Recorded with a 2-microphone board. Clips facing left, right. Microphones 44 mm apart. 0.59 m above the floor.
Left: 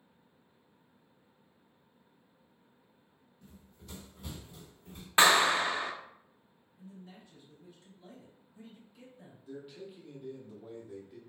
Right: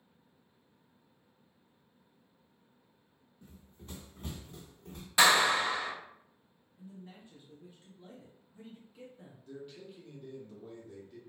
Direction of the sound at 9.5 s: 10° left (ahead or behind).